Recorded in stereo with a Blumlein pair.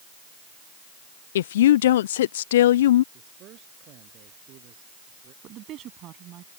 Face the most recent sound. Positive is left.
turn(degrees=-35)